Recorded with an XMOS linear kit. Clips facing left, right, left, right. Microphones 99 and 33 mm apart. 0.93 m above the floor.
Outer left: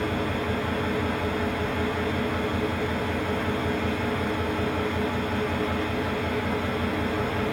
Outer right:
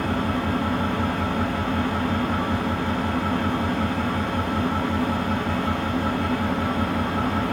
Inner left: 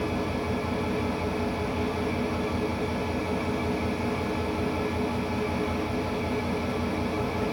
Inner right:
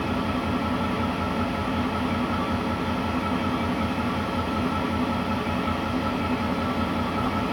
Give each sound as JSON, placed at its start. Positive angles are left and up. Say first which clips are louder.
{"t": 0.0, "sound": "an engine running", "louder": "outer right 3 dB, inner right 3 dB", "side_deg": -85, "distance_m": 6.0}